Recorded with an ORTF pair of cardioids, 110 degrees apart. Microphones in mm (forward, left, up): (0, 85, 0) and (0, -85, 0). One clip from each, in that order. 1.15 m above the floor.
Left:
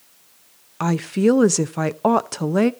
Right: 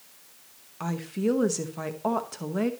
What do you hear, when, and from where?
0.8 s a woman speaking: 55° left, 0.8 m